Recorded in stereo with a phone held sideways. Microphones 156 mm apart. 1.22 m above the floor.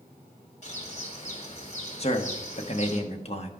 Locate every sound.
0.6 s a bird: 50° left (ahead or behind), 1.7 m
2.0 s a man speaking: 40° left (ahead or behind), 0.9 m